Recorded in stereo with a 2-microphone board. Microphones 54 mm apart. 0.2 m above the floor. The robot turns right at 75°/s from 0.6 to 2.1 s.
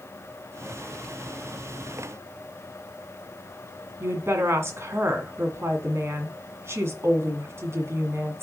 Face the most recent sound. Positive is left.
turn(degrees=-50)  # may be behind; listen again after turning